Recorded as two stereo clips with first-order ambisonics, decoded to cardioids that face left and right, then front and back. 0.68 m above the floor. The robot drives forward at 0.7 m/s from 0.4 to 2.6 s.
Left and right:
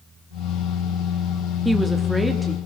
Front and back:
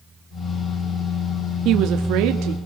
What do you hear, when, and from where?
1.6 s a woman speaking: straight behind, 0.6 m